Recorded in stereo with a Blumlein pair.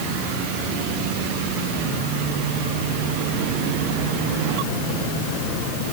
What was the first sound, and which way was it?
Only background noise.